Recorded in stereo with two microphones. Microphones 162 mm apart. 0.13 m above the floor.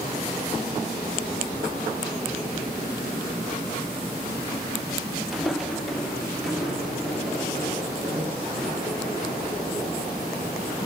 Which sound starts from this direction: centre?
Footsteps, at 5.3 s.